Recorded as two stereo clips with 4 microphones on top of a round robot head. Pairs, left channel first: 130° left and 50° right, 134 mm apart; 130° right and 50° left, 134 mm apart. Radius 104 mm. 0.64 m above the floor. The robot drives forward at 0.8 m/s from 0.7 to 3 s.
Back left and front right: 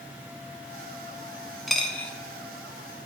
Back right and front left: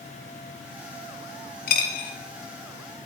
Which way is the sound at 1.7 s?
140° right.